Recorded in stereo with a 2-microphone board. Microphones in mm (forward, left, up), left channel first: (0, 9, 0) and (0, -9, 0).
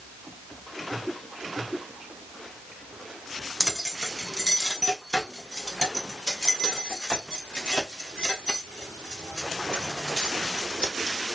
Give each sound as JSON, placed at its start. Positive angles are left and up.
{"t": 3.6, "sound": "keys jangling", "side_deg": -30, "distance_m": 0.8}